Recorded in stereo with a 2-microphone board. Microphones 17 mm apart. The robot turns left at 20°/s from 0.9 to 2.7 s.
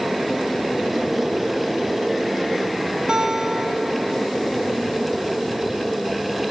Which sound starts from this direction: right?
A guitar, at 3.1 s.